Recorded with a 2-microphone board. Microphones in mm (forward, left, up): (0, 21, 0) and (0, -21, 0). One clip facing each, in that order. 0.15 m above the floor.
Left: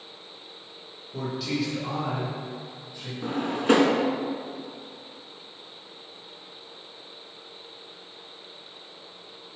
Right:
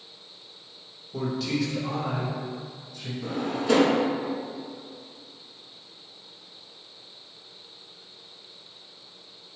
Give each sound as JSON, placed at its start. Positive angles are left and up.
{"t": 1.1, "sound": "a man speaking", "side_deg": 0, "distance_m": 1.1}
{"t": 3.2, "sound": "a drawer", "side_deg": 45, "distance_m": 0.5}